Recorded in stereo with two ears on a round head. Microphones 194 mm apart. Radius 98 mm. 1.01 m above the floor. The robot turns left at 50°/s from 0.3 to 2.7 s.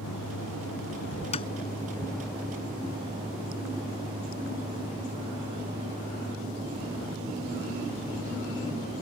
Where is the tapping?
30° left (ahead or behind); by 1.5 s 20° left (ahead or behind).